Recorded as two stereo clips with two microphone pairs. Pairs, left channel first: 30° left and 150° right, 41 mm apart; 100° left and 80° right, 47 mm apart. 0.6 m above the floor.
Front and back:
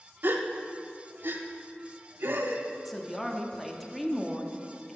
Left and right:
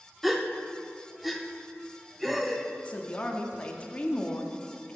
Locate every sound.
0.2 s a gasp: 170° right, 0.5 m
2.9 s a woman speaking: 115° left, 0.6 m